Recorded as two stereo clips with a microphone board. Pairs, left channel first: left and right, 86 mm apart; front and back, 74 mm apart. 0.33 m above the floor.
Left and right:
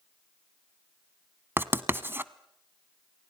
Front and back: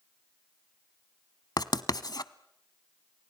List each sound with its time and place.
1.6 s writing: 25° right, 0.8 m